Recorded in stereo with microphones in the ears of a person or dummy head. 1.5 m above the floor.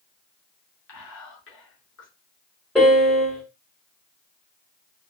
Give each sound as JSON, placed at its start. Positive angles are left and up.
{"t": 0.9, "sound": "whispering", "side_deg": 70, "distance_m": 0.9}
{"t": 2.8, "sound": "a piano", "side_deg": 0, "distance_m": 1.3}